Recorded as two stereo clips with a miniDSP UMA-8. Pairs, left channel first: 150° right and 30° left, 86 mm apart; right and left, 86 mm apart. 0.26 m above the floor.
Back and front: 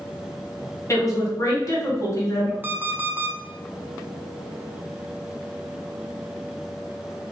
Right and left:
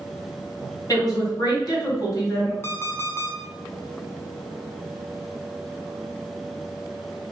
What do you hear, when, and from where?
0.9 s a woman speaking: 115° right, 1.6 m
2.6 s an alarm clock: 35° right, 0.7 m